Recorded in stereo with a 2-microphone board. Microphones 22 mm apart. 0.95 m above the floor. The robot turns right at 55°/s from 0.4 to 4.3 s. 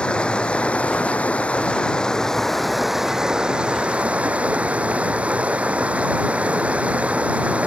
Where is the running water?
50° left; by 7.7 s 95° right.